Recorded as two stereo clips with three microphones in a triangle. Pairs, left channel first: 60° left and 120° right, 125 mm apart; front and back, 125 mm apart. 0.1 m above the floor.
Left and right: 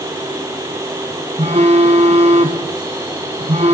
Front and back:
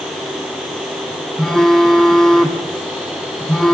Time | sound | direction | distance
1.4 | a phone buzzing | 85° right | 1.9 m